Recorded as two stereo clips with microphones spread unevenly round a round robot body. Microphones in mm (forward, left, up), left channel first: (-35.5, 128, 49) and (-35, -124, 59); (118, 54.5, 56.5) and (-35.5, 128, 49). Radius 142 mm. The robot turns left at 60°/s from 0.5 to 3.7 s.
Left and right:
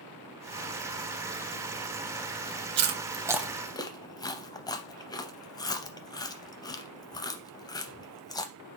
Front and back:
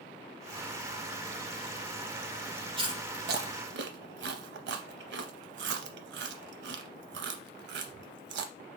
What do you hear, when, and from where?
2.8 s chewing: 140° right, 0.5 m; by 8.5 s 165° left, 0.5 m